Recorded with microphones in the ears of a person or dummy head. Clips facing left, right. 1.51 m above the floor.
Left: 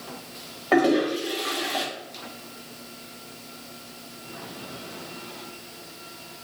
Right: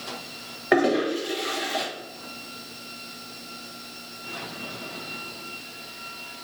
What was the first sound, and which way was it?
A toilet flushing, 15° right (ahead or behind).